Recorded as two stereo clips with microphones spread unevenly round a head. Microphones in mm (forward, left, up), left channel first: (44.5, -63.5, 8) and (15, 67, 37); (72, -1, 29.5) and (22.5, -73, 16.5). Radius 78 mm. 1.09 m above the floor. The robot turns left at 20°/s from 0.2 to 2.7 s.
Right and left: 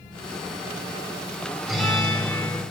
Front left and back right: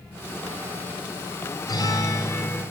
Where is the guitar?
15° left, 7 m; by 2.6 s 5° right, 7 m.